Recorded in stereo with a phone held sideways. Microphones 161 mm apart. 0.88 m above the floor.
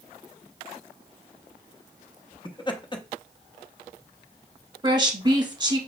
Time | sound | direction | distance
2.5 | laughter | 30° left (ahead or behind) | 0.8 m
4.8 | a woman speaking | 30° right (ahead or behind) | 1.0 m